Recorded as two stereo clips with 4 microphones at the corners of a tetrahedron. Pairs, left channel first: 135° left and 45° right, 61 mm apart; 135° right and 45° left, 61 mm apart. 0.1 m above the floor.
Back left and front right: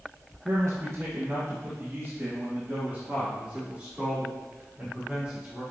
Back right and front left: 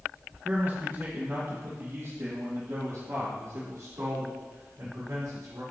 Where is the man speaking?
10° right, 2.5 m; by 5.6 s 40° left, 6.5 m.